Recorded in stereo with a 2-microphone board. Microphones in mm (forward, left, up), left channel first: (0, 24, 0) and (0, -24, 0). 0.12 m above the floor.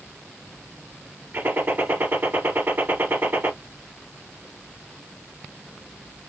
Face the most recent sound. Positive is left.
turn(degrees=-45)  # may be behind; listen again after turning